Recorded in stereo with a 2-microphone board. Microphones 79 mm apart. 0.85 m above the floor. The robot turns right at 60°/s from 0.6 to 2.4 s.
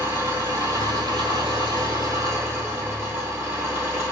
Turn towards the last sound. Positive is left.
turn(degrees=-30)